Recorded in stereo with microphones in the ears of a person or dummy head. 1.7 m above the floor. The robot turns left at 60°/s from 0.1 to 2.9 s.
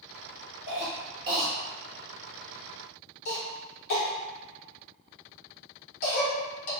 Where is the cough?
60° right (ahead or behind), 1.4 m; by 6.7 s 60° left (ahead or behind), 1.4 m.